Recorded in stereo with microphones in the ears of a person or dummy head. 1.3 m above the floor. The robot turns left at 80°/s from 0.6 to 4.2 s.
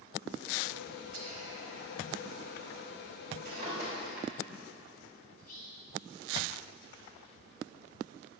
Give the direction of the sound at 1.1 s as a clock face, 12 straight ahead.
4 o'clock.